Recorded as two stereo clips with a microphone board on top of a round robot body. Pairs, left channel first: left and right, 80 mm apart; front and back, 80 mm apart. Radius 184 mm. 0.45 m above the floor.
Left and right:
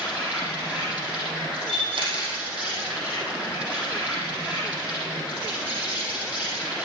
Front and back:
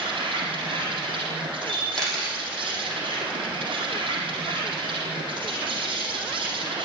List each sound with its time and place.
0.0 s an insect: 165° right, 3.5 m
1.7 s a camera shutter: 85° right, 6.5 m